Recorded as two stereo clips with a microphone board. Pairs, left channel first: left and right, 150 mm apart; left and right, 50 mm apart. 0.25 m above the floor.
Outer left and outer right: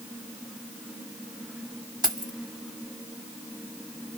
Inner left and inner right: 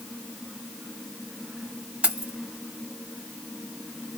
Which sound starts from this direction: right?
Keys jangling, at 2.0 s.